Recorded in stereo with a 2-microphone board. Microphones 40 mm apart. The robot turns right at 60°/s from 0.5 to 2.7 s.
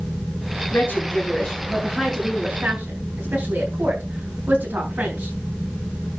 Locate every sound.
0.7 s a woman speaking: 65° left (ahead or behind), 6 m; by 5.4 s 55° right (ahead or behind), 6 m